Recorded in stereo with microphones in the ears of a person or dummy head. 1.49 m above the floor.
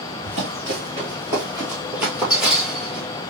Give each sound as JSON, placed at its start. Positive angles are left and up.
{"t": 0.2, "sound": "running footsteps", "side_deg": -35, "distance_m": 1.7}